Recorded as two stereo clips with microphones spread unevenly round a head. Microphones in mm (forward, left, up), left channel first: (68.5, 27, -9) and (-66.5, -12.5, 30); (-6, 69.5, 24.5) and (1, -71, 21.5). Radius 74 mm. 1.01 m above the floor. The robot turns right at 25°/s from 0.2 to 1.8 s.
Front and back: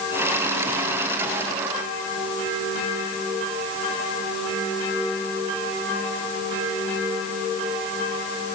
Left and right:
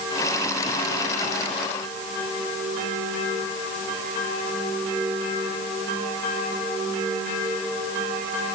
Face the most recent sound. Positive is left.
No sound to turn to.